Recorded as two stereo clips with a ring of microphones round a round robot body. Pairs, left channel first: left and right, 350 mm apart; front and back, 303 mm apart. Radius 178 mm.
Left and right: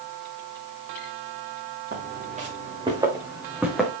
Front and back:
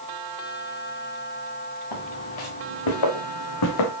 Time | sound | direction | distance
1.9 | footsteps | 25° right | 3.5 m